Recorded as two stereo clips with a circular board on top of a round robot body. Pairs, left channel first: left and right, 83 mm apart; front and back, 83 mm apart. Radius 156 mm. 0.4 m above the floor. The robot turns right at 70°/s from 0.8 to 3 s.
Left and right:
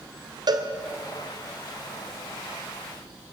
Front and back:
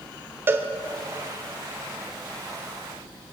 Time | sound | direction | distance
0.5 | a cowbell | 120° right | 2.5 m